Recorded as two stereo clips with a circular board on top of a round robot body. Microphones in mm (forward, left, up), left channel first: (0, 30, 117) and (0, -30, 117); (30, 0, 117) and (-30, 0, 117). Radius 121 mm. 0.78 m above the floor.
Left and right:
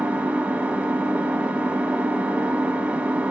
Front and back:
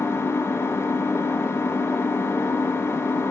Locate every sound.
0.0 s an engine running: 30° right, 0.9 m